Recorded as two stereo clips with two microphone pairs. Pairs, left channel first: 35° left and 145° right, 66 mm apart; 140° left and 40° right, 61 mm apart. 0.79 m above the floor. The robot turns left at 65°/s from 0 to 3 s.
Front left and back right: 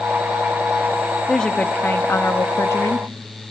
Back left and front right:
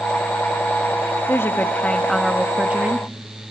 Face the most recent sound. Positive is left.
turn(degrees=5)